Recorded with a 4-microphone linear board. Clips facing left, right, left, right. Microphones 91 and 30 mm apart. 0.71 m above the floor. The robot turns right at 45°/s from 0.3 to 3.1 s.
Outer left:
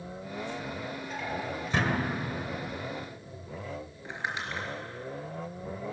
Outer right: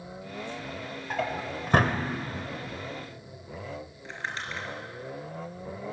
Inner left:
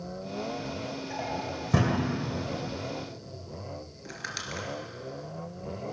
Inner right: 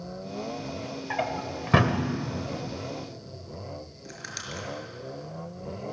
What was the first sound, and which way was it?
A drawer, 80° right.